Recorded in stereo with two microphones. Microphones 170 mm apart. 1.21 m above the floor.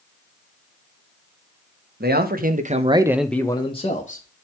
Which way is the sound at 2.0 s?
70° right (ahead or behind).